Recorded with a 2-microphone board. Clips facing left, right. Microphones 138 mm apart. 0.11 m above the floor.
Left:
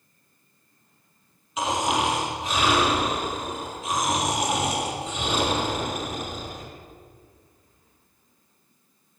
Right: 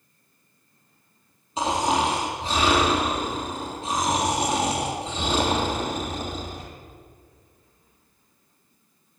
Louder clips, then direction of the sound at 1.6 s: Right 2 dB; 30° right (ahead or behind).